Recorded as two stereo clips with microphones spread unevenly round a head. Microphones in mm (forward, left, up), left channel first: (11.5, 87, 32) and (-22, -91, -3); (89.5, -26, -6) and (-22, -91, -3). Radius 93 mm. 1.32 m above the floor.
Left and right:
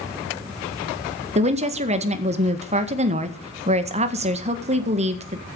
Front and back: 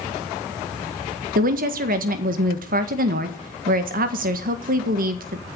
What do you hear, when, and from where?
1.4 s a woman speaking: 150° right, 1.7 m